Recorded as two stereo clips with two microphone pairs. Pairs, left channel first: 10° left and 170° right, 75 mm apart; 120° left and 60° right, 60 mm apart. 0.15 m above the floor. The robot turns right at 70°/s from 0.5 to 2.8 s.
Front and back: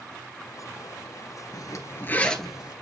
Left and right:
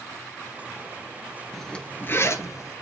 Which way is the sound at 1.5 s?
30° left.